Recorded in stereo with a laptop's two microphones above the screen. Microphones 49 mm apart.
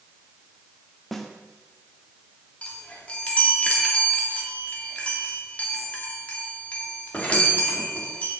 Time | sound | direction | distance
1.1 | a snare drum | centre (ahead or behind) | 1.5 m
2.6 | a chime | 25° left (ahead or behind) | 2.5 m